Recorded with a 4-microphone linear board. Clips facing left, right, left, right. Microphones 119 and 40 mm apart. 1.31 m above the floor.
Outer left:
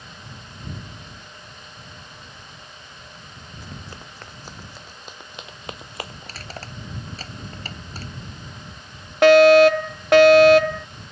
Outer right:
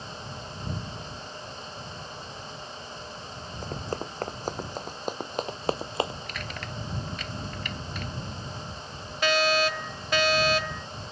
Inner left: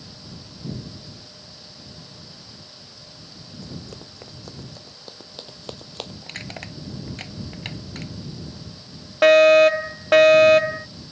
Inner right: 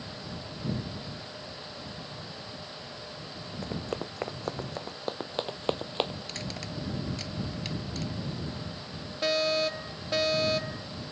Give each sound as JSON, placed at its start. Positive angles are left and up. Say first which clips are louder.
{"t": 3.6, "sound": "running footsteps", "louder": "outer right 9 dB, inner right 5 dB", "side_deg": -45}
{"t": 6.2, "sound": "crushing", "louder": "even, inner left 2 dB", "side_deg": 35}
{"t": 9.2, "sound": "a fire alarm", "louder": "outer left 15 dB, inner left 16 dB", "side_deg": 70}